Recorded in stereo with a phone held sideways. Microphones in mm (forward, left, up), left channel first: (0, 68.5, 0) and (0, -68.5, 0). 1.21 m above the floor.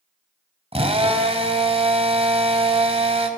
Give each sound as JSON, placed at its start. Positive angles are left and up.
{"t": 0.7, "sound": "a drill", "side_deg": -45, "distance_m": 3.5}